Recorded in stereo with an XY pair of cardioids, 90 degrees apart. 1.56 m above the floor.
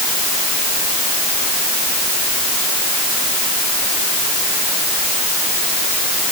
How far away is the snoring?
I don't hear snoring.